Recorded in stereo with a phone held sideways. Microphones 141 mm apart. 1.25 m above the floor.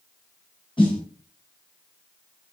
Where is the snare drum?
35° left (ahead or behind), 4.5 m.